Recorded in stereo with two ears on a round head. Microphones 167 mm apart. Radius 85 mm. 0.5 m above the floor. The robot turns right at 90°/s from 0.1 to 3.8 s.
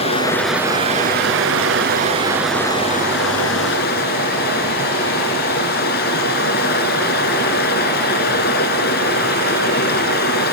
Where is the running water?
145° left, 2.5 m; by 10.5 s 120° left, 2.5 m.